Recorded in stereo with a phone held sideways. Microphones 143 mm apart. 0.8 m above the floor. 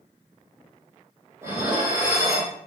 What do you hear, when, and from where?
1.4 s dishes clattering: 15° right (ahead or behind), 1.5 m